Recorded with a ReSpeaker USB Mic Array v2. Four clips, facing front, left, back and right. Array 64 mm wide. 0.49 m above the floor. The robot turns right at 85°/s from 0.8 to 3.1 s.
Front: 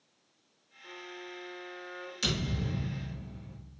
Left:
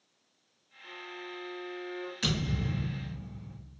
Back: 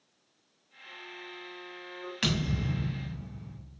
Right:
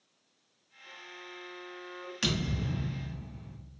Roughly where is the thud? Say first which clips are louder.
Right 1 dB, back 3 dB; behind.